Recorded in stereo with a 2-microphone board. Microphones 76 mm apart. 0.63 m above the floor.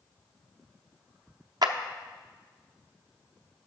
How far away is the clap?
About 0.6 m.